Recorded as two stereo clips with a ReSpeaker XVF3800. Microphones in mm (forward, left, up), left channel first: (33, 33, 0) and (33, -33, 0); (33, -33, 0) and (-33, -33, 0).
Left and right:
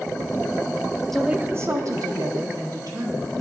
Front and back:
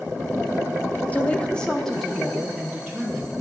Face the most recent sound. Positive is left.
turn(degrees=-90)